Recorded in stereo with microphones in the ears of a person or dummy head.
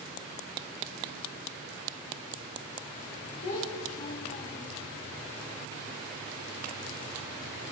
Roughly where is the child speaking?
Left.